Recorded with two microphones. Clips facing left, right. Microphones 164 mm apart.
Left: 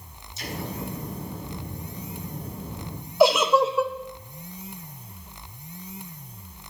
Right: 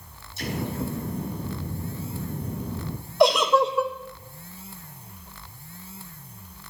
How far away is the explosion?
About 3 m.